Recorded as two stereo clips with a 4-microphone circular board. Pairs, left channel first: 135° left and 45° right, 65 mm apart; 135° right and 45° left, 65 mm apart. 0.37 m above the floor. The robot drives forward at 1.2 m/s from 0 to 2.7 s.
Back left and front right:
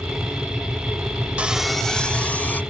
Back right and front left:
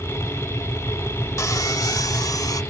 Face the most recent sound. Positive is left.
turn(degrees=-160)